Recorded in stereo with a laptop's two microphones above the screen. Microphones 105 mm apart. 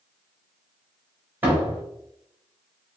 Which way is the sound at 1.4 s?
15° right (ahead or behind).